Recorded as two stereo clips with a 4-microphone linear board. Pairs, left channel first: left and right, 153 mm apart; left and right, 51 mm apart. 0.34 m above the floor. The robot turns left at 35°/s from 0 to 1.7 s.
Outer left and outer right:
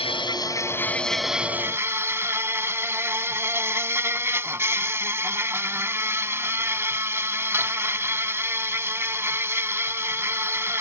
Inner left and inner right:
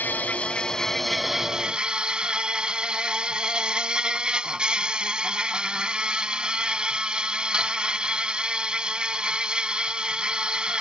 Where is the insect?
45° left; by 10.8 s 15° right.